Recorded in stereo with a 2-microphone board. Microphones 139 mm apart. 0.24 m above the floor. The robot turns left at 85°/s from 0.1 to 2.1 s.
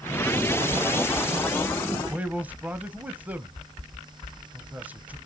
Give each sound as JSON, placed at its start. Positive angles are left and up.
{"t": 2.0, "sound": "a man speaking", "side_deg": -5, "distance_m": 1.0}